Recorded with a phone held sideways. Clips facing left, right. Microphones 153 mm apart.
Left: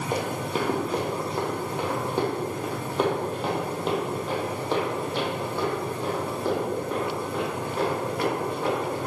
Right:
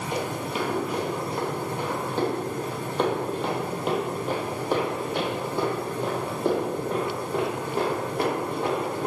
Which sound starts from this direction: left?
Running footsteps, at 0.1 s.